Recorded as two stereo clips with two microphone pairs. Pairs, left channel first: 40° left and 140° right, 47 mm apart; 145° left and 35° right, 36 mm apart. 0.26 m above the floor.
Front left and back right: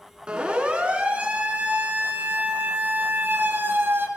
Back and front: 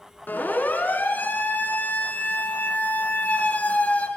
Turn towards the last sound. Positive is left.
turn(degrees=-175)